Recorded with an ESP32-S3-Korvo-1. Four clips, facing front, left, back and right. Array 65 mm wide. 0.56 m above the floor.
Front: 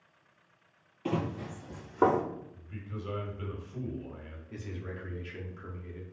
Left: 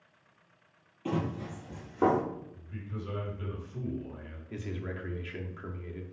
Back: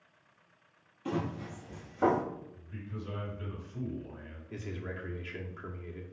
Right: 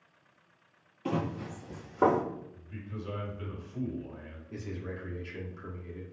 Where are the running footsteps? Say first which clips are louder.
Even, front 2 dB; 20° right, 0.8 m.